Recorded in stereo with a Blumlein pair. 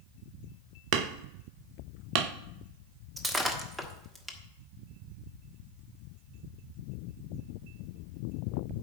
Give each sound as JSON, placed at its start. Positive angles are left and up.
{"t": 0.9, "sound": "hammering", "azimuth_deg": -40, "distance_m": 0.8}
{"t": 3.2, "sound": "breaking glass", "azimuth_deg": -5, "distance_m": 1.3}